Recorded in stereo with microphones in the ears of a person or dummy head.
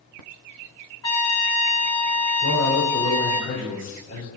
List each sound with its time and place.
1.0 s a trumpet: 20° left (ahead or behind), 1.3 m
2.4 s a man speaking: 65° left (ahead or behind), 4.5 m